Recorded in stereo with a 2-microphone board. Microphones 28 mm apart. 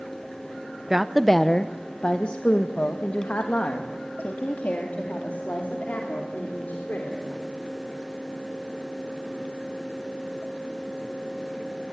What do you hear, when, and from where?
0.9 s a woman speaking: 15° right (ahead or behind), 0.7 m; by 7.2 s 75° left (ahead or behind), 4 m